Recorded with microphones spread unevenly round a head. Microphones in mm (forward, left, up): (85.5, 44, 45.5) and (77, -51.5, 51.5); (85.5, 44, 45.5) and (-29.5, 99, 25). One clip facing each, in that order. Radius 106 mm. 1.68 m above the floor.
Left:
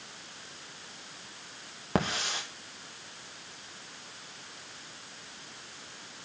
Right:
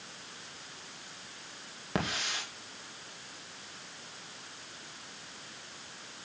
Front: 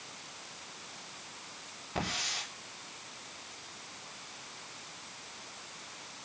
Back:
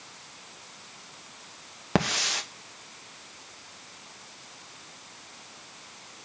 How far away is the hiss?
About 2 m.